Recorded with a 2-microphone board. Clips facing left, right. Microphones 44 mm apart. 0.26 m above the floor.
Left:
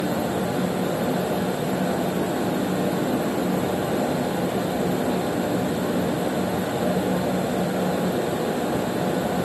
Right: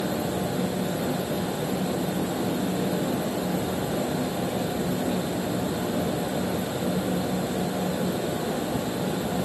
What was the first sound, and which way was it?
Only background noise.